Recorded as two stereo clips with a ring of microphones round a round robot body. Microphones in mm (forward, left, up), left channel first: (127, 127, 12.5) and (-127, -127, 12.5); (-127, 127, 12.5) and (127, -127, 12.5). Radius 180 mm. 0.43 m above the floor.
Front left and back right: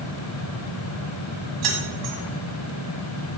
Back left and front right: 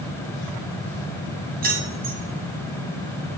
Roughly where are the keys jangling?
Right.